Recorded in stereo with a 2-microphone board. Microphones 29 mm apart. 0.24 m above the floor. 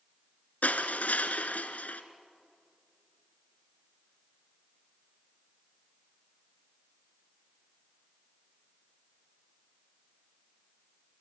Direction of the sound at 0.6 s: 70° left (ahead or behind).